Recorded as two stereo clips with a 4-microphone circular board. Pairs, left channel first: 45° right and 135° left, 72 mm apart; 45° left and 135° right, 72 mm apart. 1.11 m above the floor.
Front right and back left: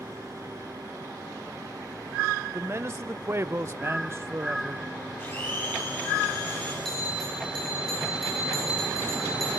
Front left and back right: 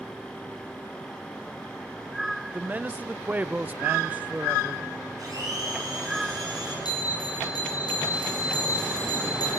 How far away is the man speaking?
About 0.5 m.